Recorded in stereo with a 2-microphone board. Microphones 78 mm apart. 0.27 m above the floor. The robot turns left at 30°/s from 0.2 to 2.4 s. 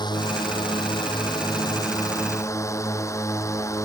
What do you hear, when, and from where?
0.0 s a drone: 110° left; by 3.9 s 40° left